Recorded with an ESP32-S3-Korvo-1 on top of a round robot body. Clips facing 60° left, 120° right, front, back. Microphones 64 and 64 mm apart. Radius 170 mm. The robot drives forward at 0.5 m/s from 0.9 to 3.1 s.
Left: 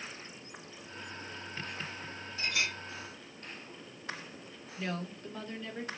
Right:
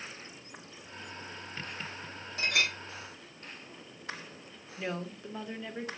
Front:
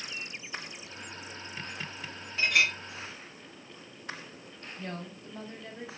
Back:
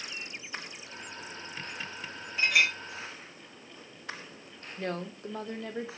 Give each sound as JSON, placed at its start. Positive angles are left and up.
{"t": 2.4, "sound": "a clink", "azimuth_deg": -90, "distance_m": 3.0}
{"t": 4.8, "sound": "a woman speaking", "azimuth_deg": 160, "distance_m": 2.5}